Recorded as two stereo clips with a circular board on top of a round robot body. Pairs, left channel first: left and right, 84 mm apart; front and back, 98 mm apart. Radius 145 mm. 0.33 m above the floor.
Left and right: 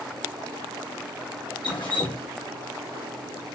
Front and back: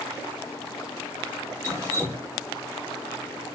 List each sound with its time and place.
1.6 s dripping: 120° left, 1.1 m